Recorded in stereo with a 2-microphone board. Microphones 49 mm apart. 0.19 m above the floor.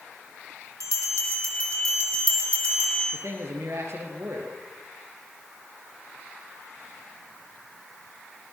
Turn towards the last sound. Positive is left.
turn(degrees=-60)  # may be behind; listen again after turning